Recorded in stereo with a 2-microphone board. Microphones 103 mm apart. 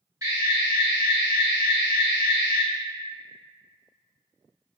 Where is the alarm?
35° right (ahead or behind), 1.9 m.